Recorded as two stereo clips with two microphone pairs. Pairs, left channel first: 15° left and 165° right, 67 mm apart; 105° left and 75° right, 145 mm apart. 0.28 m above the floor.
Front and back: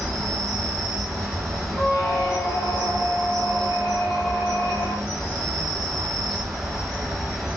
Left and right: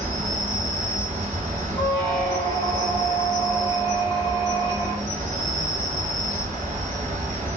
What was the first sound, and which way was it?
An insect, 70° right.